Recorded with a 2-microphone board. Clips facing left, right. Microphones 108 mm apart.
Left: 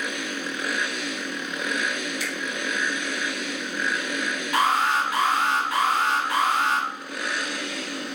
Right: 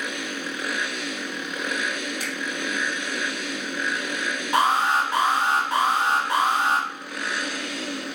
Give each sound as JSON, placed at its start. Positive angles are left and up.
{"t": 2.2, "sound": "a finger snap", "side_deg": -45, "distance_m": 3.5}
{"t": 4.5, "sound": "an alarm", "side_deg": -30, "distance_m": 3.5}